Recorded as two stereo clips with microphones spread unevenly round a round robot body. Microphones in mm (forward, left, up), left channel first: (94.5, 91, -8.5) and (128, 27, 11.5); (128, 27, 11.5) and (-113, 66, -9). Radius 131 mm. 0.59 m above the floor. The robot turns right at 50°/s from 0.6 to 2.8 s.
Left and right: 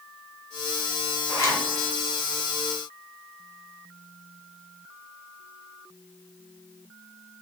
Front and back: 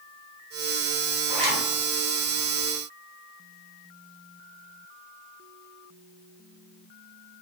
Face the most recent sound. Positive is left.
turn(degrees=150)